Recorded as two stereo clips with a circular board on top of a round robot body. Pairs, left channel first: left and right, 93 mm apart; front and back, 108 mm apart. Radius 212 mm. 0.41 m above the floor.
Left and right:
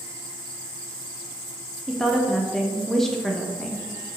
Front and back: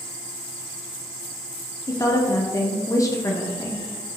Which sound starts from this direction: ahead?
A woman speaking, at 1.9 s.